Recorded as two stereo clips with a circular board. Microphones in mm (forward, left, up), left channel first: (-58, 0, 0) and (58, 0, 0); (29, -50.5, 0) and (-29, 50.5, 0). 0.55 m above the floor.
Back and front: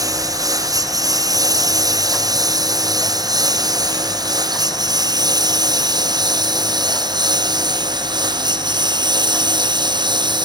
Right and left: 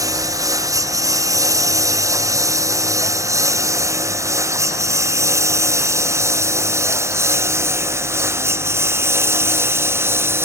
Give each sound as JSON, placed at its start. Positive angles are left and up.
{"t": 0.0, "sound": "a lawn mower", "azimuth_deg": 60}